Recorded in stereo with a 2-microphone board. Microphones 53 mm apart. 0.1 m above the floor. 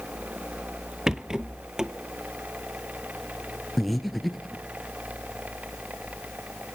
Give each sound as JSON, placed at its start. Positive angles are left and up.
{"t": 1.1, "sound": "a rattle", "side_deg": -15, "distance_m": 0.6}
{"t": 3.8, "sound": "breathing", "side_deg": 0, "distance_m": 1.2}